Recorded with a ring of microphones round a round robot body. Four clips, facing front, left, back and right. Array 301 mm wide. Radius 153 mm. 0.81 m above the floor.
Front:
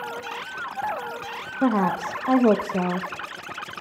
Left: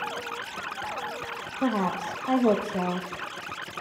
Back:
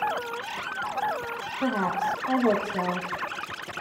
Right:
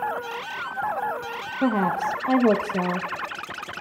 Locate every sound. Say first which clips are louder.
1.6 s a woman speaking: right 4 dB, front 4 dB; 25° right, 1.1 m